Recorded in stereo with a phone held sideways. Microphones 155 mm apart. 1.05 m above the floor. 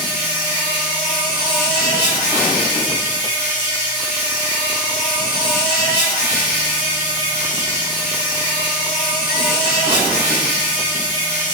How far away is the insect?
About 2.0 m.